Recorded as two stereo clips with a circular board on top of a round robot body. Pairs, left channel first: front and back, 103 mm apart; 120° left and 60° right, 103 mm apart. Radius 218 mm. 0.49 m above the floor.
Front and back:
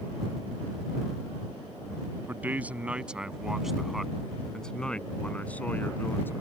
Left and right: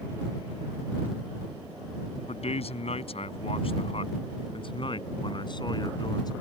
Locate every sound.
2.3 s a man speaking: 105° left; by 6.3 s 70° left